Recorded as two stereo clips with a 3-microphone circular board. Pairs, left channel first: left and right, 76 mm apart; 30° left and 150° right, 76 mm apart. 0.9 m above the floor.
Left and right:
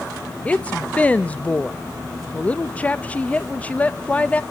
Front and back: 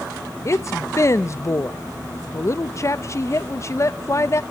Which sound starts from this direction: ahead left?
A woman speaking, at 0.5 s.